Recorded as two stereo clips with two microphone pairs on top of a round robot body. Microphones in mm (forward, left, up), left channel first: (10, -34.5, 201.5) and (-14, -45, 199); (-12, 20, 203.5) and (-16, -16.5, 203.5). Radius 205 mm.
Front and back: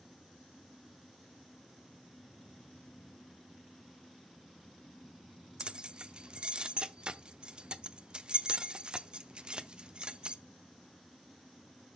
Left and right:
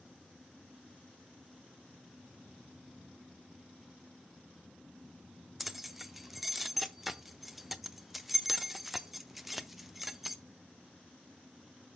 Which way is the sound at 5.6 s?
175° left.